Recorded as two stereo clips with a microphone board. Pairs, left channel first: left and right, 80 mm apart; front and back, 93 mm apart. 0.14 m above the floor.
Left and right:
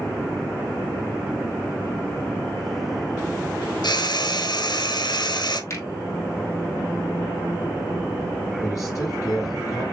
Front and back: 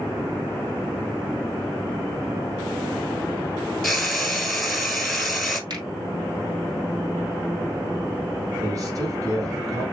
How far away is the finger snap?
About 3 m.